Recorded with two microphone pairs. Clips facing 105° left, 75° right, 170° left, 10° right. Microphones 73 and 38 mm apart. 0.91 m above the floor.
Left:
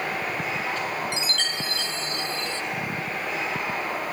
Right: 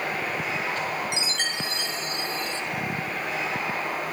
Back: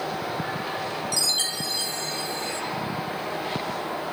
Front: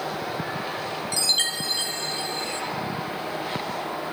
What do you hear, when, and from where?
1.1 s a chime: 15° right, 0.5 m